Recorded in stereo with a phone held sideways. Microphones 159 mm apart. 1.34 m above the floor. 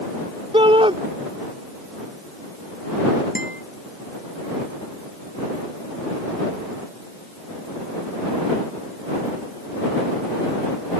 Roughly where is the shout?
Right.